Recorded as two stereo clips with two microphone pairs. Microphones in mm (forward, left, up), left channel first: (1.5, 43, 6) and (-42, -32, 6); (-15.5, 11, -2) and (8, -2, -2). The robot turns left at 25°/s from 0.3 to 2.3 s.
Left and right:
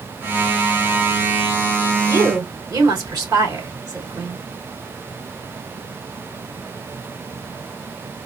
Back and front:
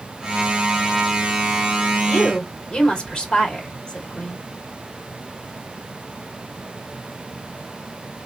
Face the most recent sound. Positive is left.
turn(degrees=-155)